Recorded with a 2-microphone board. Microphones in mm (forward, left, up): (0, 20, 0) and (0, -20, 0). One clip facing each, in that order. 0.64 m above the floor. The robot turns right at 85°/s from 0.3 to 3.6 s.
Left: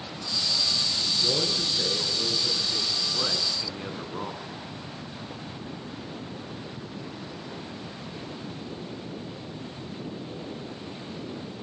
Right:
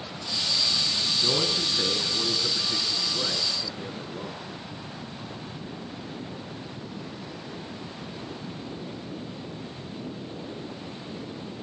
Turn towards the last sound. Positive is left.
turn(degrees=55)